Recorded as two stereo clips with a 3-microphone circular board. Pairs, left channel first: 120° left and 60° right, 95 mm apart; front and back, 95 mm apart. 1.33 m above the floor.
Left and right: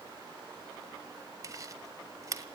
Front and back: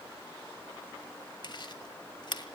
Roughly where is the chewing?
Ahead.